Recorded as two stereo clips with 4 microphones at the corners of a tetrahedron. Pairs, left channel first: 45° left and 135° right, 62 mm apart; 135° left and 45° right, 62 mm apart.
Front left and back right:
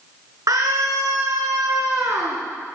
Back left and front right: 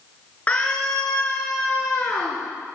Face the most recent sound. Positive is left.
turn(degrees=-175)